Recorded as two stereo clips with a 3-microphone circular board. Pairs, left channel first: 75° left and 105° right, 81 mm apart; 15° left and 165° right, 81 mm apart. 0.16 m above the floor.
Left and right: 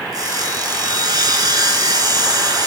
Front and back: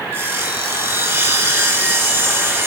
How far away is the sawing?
About 1.8 m.